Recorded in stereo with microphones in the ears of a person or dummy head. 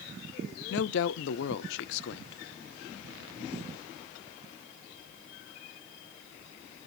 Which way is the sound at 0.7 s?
65° left (ahead or behind).